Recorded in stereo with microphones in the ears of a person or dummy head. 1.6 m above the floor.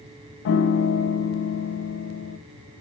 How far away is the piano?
About 1.0 m.